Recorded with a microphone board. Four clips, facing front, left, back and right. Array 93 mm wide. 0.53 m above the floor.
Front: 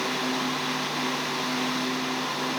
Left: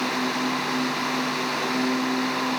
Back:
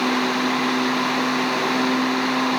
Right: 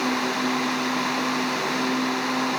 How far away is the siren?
No siren in this recording.